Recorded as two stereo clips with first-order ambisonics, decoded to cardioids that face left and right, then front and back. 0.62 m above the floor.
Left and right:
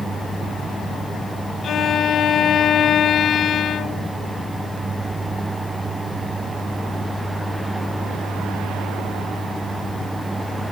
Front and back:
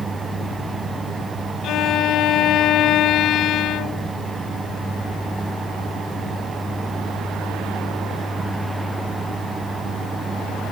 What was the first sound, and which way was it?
A violin, 35° left.